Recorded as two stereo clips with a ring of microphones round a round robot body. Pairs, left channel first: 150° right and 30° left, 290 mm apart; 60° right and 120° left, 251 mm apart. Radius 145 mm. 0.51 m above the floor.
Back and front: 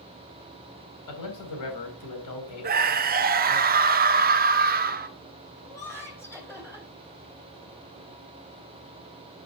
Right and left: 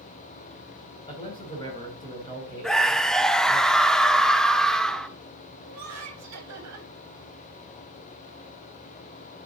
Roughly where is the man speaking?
Behind right.